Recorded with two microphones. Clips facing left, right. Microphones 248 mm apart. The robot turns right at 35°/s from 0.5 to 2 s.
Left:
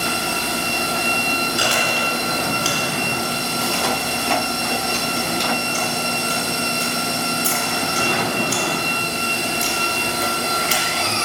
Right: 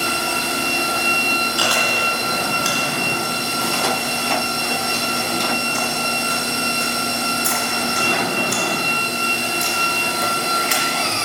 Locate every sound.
1.6 s chewing: 20° left (ahead or behind), 1.4 m; by 11.1 s 35° left (ahead or behind), 1.4 m